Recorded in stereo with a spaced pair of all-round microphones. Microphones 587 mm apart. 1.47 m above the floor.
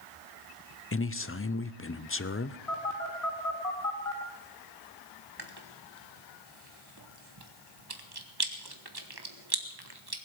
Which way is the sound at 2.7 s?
75° left (ahead or behind).